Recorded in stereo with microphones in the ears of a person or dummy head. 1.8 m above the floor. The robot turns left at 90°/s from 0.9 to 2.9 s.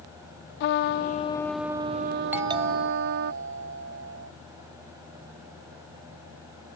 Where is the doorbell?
10° right; by 4.3 s 60° right.